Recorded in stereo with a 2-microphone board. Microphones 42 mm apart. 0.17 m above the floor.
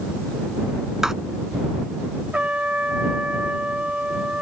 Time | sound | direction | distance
1.0 | writing | 10° right (ahead or behind) | ?
2.3 | a trumpet | 30° right (ahead or behind) | ?